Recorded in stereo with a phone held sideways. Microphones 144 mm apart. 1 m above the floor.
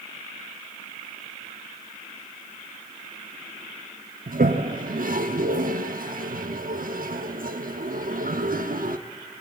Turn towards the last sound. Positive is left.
turn(degrees=-75)  # may be behind; listen again after turning